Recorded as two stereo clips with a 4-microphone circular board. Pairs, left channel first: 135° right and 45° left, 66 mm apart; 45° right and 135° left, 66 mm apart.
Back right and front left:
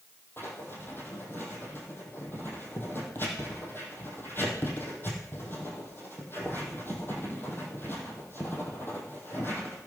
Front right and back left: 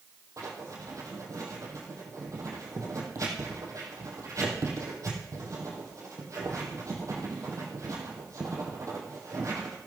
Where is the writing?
170° left, 3 m.